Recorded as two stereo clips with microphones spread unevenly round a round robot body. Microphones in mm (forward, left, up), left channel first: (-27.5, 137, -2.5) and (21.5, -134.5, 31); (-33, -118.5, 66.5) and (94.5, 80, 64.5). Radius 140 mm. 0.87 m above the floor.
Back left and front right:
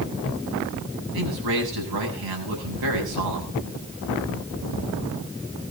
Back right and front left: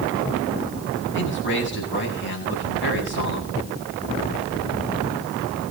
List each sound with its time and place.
1.1 s a man speaking: 85° right, 8 m